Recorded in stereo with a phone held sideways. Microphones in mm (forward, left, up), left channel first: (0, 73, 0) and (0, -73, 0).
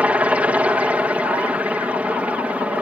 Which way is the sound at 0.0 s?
10° right (ahead or behind).